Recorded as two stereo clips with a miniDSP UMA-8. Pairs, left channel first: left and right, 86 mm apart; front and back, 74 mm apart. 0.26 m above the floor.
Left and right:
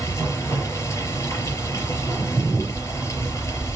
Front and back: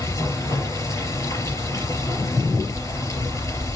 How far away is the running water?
About 4.5 m.